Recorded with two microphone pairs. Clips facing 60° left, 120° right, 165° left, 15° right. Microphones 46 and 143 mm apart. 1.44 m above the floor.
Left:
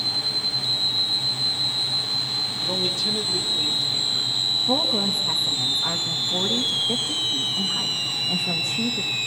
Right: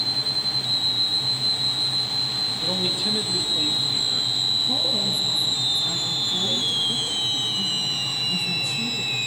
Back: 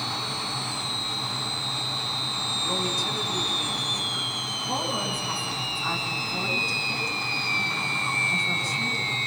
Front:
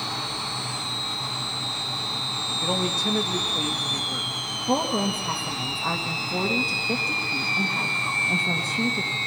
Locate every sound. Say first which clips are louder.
2.6 s a man speaking: even, front 4 dB; 45° right, 2 m
4.7 s a woman speaking: left 2 dB, front 7 dB; 15° left, 1.9 m